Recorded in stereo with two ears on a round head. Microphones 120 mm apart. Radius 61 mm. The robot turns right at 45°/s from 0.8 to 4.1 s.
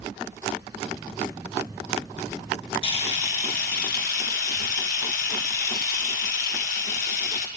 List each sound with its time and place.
2.8 s a camera shutter: 45° left, 2.5 m; by 7.5 s 100° left, 2.5 m